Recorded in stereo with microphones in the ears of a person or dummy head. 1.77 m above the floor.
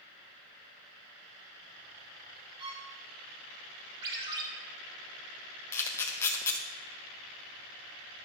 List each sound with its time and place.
2.6 s a violin: 30° right (ahead or behind), 3 m
4.0 s a ringtone: 30° right (ahead or behind), 2.5 m
5.7 s a camera shutter: 15° left (ahead or behind), 1.0 m